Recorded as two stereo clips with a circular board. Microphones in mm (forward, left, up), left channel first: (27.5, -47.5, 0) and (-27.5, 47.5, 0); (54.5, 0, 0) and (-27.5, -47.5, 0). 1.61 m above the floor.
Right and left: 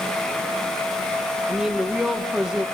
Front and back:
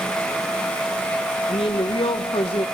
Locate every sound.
1.5 s a woman speaking: 35° left, 1.5 m